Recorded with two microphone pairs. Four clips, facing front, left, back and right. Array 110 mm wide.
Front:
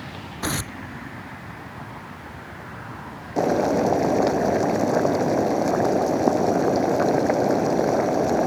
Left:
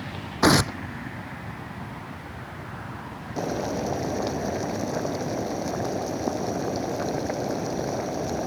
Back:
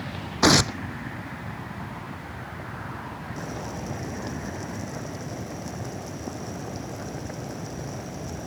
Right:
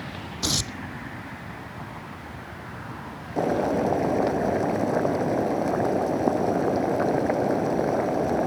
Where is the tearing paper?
130° left.